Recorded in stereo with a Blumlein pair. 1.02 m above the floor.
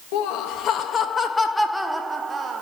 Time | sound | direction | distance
0.1 | laughter | 45° left | 1.1 m